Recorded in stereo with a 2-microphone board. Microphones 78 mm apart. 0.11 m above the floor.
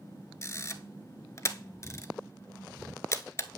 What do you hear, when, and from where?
0.4 s a camera shutter: 35° left (ahead or behind), 0.6 m